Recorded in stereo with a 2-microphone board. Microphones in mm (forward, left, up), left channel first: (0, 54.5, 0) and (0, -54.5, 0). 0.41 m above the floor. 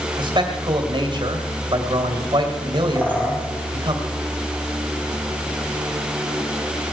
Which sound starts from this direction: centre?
A bird, at 3.0 s.